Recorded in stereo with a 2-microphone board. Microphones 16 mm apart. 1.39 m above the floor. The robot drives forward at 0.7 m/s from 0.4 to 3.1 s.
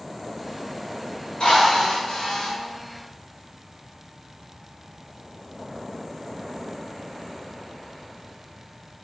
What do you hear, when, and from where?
1.4 s a drill: 75° left (ahead or behind), 3 m; by 2.5 s 90° left, 3 m